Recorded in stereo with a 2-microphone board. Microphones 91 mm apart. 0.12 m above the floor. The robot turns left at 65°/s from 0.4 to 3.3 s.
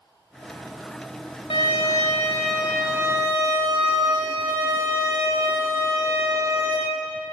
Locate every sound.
1.5 s a violin: 75° left, 2.5 m; by 6.8 s 40° right, 2.5 m